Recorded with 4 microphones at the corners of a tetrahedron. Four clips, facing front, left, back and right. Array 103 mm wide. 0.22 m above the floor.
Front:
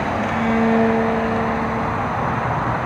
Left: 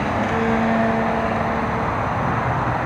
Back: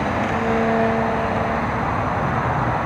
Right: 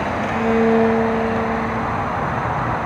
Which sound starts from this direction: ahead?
A violin, at 0.3 s.